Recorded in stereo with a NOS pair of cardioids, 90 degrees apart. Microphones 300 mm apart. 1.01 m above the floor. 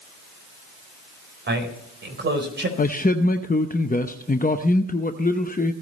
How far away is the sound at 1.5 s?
About 4 m.